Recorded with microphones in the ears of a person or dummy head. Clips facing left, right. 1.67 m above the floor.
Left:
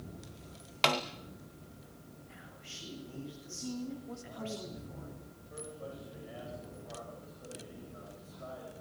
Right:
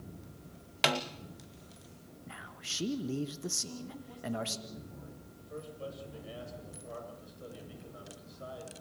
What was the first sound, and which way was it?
A snare drum, 10° right (ahead or behind).